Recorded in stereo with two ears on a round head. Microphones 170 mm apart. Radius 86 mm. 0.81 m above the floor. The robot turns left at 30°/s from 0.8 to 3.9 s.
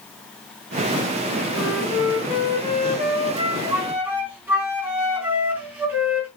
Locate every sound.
1.5 s a flute: 95° right, 4 m; by 6.3 s 170° right, 4 m